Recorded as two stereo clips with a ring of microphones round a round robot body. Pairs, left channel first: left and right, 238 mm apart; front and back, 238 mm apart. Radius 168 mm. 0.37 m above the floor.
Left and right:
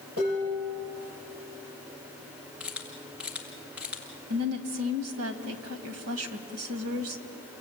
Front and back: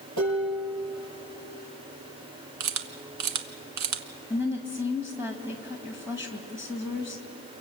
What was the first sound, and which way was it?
Dishes clattering, 150° right.